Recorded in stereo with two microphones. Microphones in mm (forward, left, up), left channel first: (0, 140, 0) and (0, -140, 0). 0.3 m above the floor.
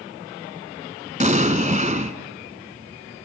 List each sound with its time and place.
1.2 s an explosion: 25° right (ahead or behind), 1.4 m